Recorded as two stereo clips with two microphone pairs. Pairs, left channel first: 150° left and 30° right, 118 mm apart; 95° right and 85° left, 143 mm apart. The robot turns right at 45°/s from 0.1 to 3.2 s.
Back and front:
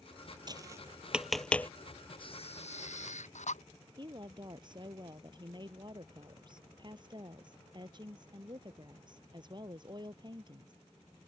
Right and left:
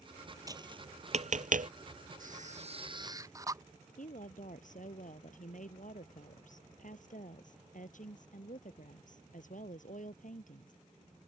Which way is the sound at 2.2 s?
105° left.